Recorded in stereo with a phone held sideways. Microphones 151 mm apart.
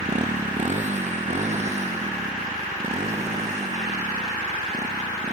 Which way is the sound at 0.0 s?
50° right (ahead or behind).